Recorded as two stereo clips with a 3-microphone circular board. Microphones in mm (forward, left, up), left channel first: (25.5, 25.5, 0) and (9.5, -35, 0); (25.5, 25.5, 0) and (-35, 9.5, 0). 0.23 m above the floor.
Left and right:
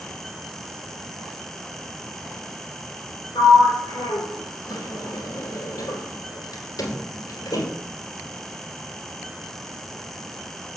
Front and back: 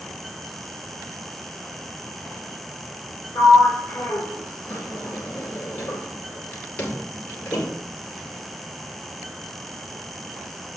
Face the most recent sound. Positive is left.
turn(degrees=80)